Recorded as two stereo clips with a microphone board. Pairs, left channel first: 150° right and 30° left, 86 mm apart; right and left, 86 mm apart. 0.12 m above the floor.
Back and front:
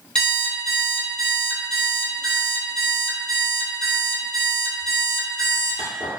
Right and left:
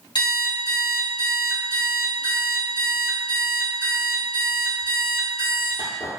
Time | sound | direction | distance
0.1 | an alarm clock | 75° right | 1.7 m